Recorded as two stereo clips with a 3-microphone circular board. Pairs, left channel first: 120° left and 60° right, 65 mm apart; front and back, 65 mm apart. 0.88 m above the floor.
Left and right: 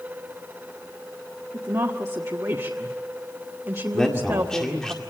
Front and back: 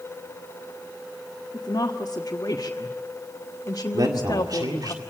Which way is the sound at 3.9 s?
160° right.